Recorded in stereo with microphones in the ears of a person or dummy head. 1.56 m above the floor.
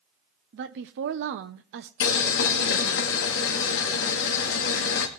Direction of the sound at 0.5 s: 65° right (ahead or behind).